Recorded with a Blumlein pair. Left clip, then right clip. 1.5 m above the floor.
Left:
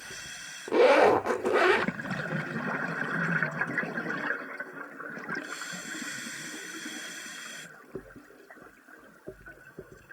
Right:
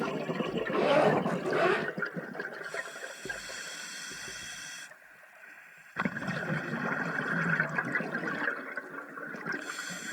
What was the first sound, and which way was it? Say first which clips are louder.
A zipper: left 6 dB; 65° left.